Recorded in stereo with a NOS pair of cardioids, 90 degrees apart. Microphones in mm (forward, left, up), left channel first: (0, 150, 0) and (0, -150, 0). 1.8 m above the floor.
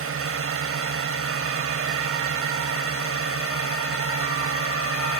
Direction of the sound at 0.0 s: 45° right.